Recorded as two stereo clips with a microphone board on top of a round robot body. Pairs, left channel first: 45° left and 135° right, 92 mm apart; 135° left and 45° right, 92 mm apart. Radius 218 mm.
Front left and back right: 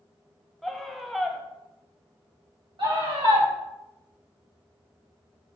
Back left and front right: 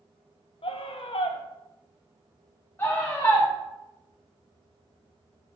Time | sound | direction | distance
0.6 | a scream | 135° left | 1.4 m
2.8 | a scream | 160° right | 4 m